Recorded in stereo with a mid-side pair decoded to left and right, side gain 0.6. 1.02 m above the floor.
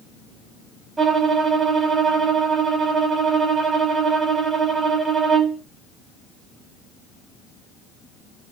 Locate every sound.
1.0 s a violin: 25° right, 1.5 m